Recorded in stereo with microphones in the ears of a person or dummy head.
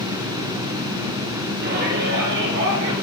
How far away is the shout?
About 5 m.